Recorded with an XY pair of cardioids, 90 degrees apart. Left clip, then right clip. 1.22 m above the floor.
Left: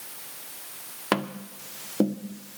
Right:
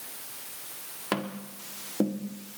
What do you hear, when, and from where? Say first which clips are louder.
1.1 s tapping: left 5 dB; 30° left, 1.4 m